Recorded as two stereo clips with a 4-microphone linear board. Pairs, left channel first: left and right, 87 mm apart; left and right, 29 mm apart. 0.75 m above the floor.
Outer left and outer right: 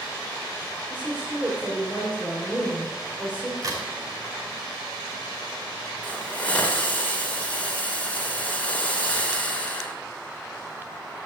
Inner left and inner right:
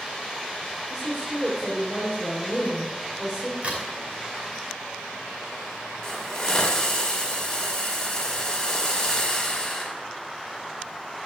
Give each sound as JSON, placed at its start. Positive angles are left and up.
{"t": 0.9, "sound": "a woman speaking", "side_deg": -20, "distance_m": 3.0}
{"t": 3.6, "sound": "a crack", "side_deg": -40, "distance_m": 5.5}
{"t": 6.0, "sound": "a hiss", "side_deg": 20, "distance_m": 2.5}